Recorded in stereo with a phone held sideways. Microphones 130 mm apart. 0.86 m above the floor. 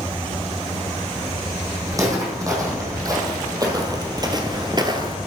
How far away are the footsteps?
About 3 m.